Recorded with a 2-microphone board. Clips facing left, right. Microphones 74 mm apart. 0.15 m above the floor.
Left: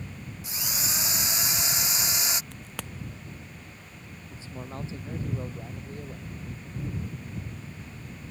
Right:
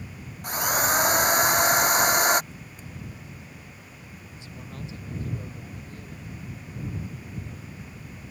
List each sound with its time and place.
0.4 s a drill: 50° right (ahead or behind)
2.5 s a crack: 80° left
4.3 s a man speaking: 30° left (ahead or behind)